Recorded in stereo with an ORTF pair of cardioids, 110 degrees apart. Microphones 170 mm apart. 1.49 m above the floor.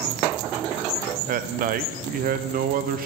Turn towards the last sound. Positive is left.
turn(degrees=-60)